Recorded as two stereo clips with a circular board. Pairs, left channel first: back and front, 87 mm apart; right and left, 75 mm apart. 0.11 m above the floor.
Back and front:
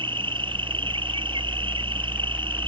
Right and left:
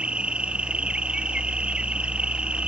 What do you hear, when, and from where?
0.0 s an insect: 15° left